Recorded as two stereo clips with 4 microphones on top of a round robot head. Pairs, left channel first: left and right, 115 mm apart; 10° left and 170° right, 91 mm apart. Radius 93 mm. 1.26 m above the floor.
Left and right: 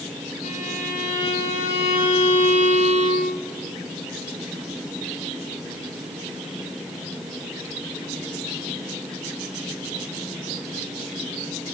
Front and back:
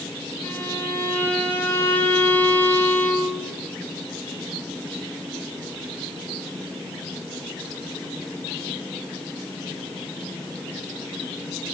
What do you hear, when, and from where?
0.4 s a violin: 80° left, 9 m